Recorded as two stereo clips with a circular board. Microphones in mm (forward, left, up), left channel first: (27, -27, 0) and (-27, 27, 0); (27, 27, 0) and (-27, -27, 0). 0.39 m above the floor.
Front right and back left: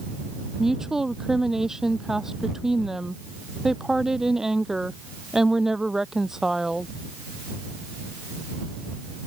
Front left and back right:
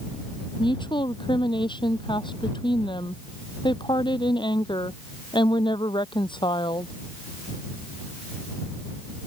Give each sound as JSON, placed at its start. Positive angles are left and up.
{"t": 0.6, "sound": "a woman speaking", "azimuth_deg": 50}